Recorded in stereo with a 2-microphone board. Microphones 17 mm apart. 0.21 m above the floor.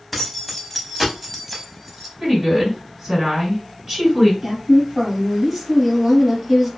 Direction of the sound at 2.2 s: 30° right (ahead or behind).